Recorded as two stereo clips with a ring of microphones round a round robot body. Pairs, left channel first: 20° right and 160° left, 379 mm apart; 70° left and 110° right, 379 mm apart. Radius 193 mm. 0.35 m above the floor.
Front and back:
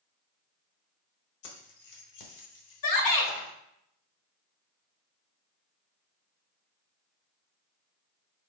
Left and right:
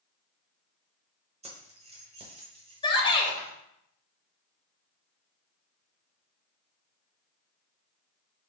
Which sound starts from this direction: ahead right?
Keys jangling, at 1.4 s.